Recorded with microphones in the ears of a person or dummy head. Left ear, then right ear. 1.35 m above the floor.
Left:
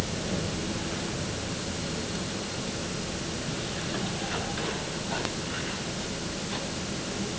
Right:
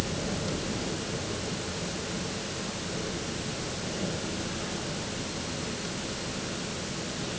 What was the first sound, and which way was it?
Only background noise.